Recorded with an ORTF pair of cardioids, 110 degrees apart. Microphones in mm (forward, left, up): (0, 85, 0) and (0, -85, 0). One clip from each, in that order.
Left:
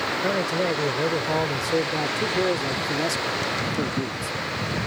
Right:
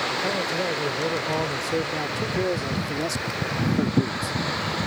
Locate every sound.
0.2 s a man speaking: 20° left; by 4.8 s 10° right